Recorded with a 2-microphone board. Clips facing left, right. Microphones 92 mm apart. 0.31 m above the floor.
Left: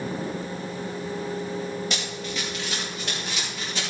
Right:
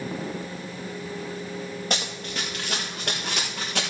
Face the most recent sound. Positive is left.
turn(degrees=-65)  # may be behind; listen again after turning